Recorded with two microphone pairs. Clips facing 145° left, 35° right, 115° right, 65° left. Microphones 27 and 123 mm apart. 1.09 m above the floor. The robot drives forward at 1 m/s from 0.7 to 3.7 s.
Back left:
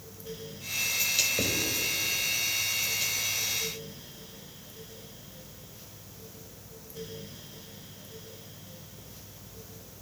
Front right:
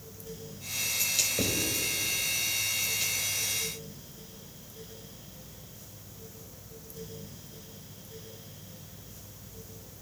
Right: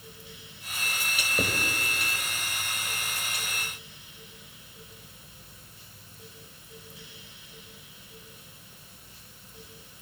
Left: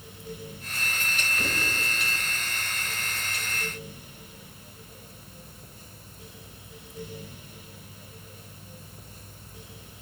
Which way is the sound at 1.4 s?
130° right.